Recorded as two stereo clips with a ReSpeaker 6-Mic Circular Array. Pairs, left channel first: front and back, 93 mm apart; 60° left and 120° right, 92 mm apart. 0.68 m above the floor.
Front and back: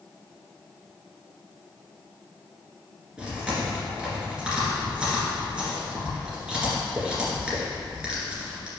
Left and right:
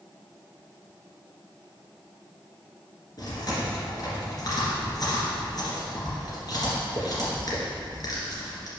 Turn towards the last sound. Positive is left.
turn(degrees=100)